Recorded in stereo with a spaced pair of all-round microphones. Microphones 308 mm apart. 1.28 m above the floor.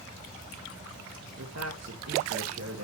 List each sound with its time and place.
1.4 s a man speaking: 55° right (ahead or behind), 1.9 m